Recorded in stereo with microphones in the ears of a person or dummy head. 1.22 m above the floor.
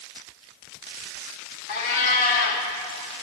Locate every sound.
1.7 s a cat meowing: 50° left (ahead or behind), 1.5 m